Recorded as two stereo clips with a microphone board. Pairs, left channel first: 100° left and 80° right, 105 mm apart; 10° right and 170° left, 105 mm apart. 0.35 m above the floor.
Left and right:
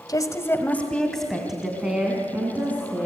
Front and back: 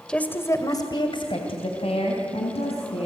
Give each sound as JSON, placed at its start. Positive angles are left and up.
{"t": 0.1, "sound": "a woman speaking", "azimuth_deg": 65, "distance_m": 1.7}